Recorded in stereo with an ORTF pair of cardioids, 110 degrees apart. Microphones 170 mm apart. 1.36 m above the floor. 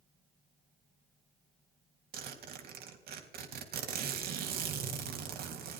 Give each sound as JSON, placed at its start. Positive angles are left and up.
{"t": 2.1, "sound": "a zipper", "azimuth_deg": -65, "distance_m": 3.5}